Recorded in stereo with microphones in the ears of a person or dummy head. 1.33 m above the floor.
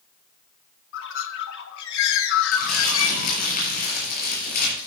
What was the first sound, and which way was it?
A bird, 70° left (ahead or behind).